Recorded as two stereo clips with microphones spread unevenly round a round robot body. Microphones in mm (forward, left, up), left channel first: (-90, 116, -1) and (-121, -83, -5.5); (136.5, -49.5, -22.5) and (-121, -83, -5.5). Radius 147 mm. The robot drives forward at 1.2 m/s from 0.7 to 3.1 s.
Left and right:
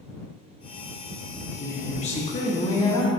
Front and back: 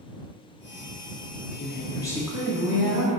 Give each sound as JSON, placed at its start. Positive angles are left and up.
{"t": 1.6, "sound": "a woman speaking", "azimuth_deg": 30, "distance_m": 1.3}